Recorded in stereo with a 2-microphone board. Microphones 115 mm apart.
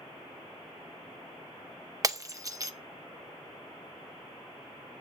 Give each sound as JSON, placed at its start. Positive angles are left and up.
{"t": 2.0, "sound": "breaking glass", "side_deg": -30, "distance_m": 0.6}